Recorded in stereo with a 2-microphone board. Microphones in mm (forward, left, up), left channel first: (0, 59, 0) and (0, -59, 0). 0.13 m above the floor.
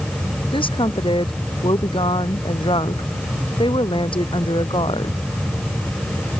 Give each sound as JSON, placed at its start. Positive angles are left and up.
{"t": 0.5, "sound": "a woman speaking", "side_deg": 50}